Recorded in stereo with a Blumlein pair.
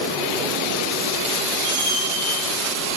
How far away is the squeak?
About 1.6 m.